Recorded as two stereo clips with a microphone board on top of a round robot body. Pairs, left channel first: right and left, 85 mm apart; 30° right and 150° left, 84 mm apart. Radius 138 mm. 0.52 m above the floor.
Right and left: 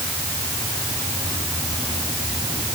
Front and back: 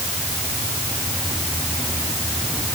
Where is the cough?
I don't hear a cough.